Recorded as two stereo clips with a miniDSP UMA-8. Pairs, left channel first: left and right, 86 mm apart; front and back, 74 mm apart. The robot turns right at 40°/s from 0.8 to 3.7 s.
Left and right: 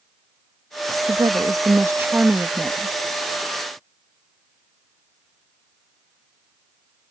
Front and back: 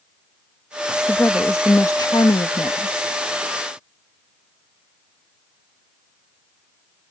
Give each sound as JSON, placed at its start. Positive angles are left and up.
{"t": 1.1, "sound": "a woman speaking", "azimuth_deg": -65}